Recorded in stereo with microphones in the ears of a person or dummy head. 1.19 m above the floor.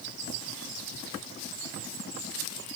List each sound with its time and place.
Only background noise.